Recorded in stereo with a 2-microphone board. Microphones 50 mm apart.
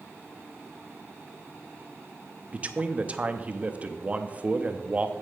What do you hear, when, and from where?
2.5 s a man speaking: 25° right (ahead or behind), 0.7 m